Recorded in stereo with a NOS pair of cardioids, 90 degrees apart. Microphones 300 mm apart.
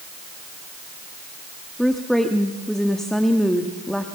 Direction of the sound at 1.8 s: Straight ahead.